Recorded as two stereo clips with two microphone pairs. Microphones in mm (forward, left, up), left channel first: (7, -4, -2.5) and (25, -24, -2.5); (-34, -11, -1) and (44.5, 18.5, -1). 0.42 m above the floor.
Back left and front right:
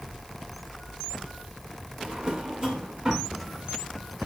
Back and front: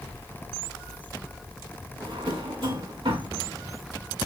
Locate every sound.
2.0 s a drawer: 10° left, 1.7 m